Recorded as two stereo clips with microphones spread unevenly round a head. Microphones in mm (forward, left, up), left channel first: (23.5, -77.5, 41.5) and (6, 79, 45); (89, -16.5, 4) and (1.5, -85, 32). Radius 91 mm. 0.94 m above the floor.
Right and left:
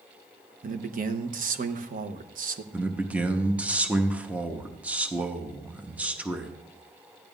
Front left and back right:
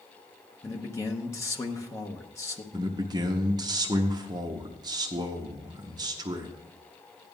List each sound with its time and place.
0.6 s a man speaking: 85° left, 0.9 m
2.7 s a man speaking: 170° left, 1.0 m